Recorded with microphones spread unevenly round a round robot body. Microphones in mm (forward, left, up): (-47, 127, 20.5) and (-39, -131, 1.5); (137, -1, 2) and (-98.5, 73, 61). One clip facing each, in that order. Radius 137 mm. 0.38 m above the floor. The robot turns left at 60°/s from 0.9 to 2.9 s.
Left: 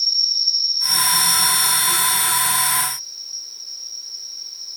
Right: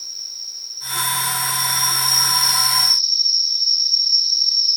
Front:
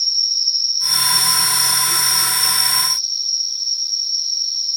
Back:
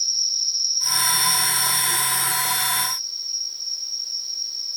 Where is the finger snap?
I don't hear a finger snap.